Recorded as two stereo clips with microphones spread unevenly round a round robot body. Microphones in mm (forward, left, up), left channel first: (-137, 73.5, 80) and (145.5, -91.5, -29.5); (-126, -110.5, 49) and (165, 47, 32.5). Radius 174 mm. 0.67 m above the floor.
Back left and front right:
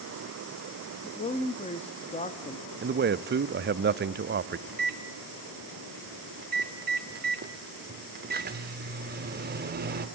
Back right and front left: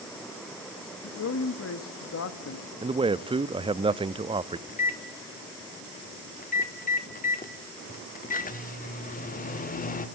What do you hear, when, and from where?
1.0 s a man speaking: 125° right, 1.3 m
2.8 s a man speaking: 40° right, 0.7 m
4.7 s a microwave: 85° right, 1.4 m